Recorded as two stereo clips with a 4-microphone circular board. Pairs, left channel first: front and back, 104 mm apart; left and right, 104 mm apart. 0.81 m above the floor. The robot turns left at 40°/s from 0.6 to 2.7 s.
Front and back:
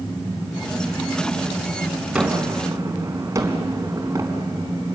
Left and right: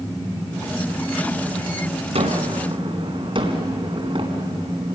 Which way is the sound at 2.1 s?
100° right.